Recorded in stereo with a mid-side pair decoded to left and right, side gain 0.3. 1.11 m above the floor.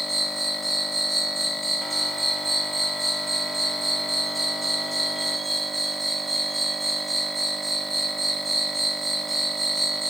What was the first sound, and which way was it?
An insect, 10° right.